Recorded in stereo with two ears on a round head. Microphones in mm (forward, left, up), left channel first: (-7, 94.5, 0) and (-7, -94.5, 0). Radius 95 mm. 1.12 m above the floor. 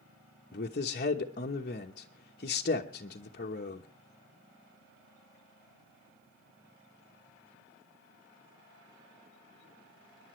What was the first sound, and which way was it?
A man speaking, 40° left (ahead or behind).